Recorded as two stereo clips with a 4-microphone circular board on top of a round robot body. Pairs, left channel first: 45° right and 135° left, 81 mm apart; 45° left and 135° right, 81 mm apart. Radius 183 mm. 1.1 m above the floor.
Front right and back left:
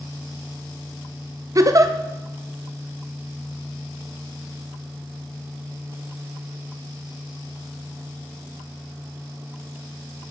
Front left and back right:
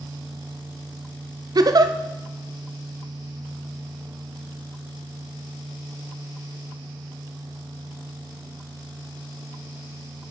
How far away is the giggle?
About 0.9 m.